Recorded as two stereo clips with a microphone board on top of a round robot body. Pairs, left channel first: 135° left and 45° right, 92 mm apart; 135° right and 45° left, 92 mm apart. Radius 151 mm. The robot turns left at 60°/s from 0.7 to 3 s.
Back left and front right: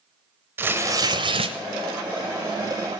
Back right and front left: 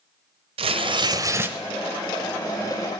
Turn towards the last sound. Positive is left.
turn(degrees=-115)